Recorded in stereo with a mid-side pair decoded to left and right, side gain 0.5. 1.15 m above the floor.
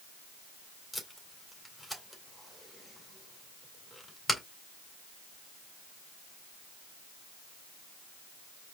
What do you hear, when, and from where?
0.9 s tape being pulled: 10° left, 2 m